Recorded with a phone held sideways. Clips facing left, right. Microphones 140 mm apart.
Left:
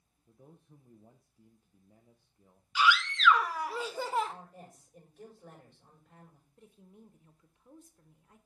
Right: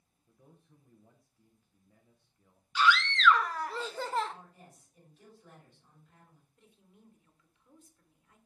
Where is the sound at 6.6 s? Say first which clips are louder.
Left 7 dB; 40° left (ahead or behind), 0.9 m.